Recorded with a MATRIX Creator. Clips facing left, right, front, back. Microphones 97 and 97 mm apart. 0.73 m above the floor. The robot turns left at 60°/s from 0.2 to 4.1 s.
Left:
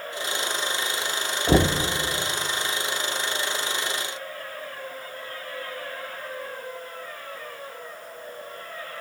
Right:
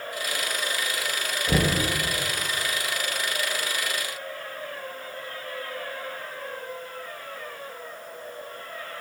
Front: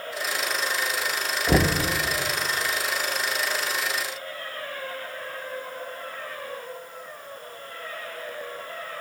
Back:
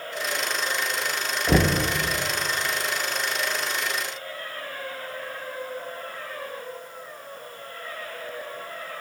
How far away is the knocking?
About 0.5 m.